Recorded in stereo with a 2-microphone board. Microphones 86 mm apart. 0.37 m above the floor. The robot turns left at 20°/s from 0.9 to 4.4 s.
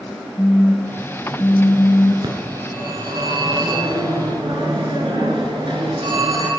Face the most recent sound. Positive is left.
turn(degrees=-105)